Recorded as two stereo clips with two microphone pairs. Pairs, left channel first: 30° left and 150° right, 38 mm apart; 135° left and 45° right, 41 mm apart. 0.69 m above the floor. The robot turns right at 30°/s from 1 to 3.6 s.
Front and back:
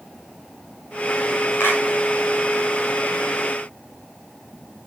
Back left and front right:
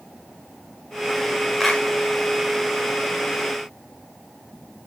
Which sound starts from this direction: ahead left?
A clap, at 1.6 s.